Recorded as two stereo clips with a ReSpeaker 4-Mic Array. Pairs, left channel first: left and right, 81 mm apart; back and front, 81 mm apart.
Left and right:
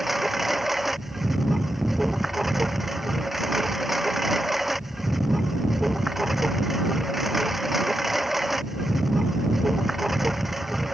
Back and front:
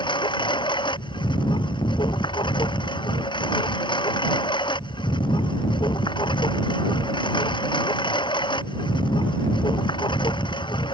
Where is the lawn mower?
175° right.